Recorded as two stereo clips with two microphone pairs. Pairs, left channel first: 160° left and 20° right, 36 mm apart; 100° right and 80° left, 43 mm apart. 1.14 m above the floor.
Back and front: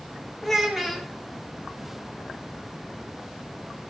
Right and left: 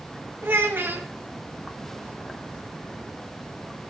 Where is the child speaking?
65° left, 1.3 m.